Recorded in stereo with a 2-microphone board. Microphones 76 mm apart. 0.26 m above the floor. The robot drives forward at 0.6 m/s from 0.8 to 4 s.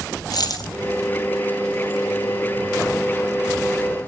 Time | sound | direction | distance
0.3 | a dropped coin | 55° left (ahead or behind) | 2 m